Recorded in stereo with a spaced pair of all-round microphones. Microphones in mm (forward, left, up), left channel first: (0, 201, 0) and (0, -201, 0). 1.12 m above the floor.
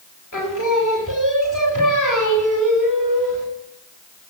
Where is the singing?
50° left (ahead or behind), 2.0 m.